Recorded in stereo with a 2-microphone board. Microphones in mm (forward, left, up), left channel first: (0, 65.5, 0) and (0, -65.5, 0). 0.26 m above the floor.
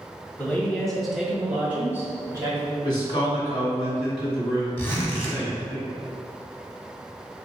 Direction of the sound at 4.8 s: 15° left (ahead or behind).